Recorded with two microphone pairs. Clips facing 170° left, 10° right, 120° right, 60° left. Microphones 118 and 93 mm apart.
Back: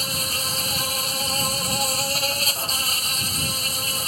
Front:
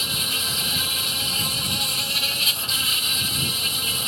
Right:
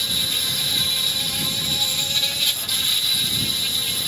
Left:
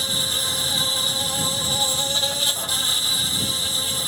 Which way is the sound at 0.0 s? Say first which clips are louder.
Back 2 dB, left 2 dB; 115° left.